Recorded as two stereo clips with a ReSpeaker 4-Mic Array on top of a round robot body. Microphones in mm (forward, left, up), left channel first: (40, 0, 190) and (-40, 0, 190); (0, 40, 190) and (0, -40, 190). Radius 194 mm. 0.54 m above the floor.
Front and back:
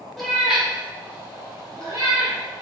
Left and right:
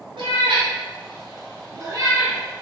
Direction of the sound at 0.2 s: 90° right.